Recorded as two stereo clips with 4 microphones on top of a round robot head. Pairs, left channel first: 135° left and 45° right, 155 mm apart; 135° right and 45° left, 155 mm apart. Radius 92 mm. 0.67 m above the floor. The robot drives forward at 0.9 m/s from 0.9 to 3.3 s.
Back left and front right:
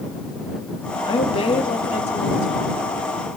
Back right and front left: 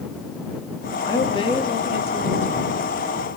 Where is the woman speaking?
175° left, 1.4 m; by 2.8 s straight behind, 2.5 m.